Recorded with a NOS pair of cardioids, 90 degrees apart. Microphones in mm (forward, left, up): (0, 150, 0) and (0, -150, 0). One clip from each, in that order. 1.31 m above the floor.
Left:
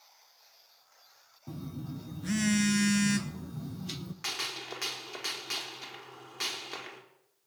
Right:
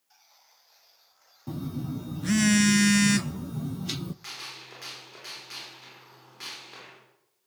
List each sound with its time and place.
1.5 s a phone buzzing: 35° right, 0.7 m
4.2 s a gunshot: 50° left, 4.5 m